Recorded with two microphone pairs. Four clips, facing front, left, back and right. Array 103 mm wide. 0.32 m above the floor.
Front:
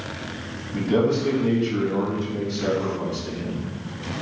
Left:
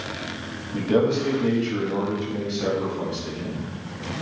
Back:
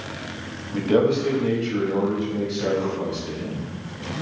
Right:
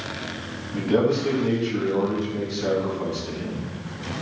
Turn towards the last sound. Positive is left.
turn(degrees=90)